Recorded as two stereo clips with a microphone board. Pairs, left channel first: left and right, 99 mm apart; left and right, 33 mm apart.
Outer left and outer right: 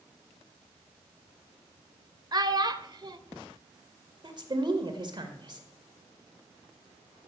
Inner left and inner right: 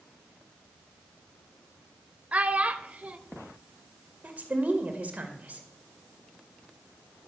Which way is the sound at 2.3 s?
45° right (ahead or behind).